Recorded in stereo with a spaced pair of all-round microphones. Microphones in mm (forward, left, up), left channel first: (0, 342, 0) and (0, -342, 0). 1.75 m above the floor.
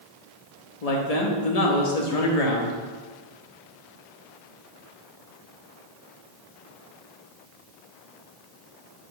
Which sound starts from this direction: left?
A man speaking, at 0.8 s.